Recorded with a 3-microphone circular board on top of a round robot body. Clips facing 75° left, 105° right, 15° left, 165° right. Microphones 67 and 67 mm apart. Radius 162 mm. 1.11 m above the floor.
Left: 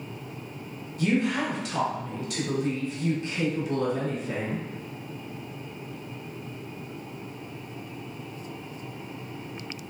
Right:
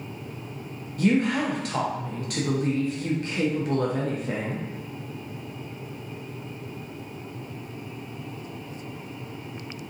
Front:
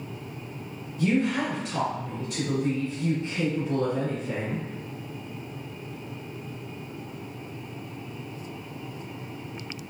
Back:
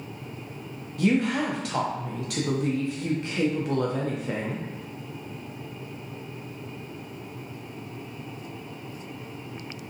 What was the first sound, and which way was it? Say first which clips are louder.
A woman speaking: right 3 dB, back 1 dB; 150° right.